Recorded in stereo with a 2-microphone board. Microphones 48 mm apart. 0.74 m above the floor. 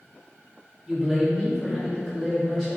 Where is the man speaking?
Centre (ahead or behind), 1.5 m.